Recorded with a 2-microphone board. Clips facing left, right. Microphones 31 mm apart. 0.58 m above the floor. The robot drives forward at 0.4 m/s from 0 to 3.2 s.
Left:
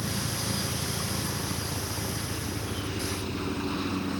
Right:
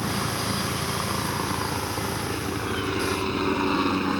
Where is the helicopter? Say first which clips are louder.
Right 5 dB; 70° right (ahead or behind).